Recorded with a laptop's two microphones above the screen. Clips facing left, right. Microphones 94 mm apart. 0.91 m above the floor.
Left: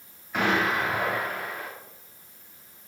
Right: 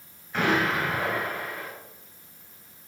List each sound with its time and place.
0.3 s an explosion: 10° left (ahead or behind), 6.5 m